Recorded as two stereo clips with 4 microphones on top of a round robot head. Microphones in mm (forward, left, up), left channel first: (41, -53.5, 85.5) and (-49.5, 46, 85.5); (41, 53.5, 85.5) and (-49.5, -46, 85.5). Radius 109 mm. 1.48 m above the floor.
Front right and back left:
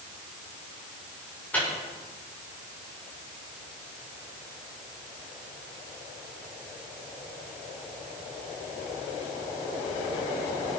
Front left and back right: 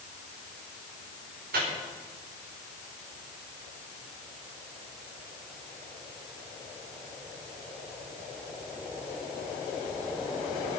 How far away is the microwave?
About 4.5 m.